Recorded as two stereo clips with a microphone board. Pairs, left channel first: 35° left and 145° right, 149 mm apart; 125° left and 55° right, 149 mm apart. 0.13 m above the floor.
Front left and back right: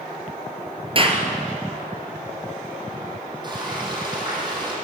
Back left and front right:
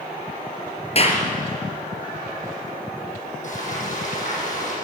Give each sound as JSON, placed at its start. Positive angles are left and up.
{"t": 0.9, "sound": "a clap", "azimuth_deg": 165, "distance_m": 3.0}
{"t": 3.4, "sound": "frying", "azimuth_deg": 155, "distance_m": 8.5}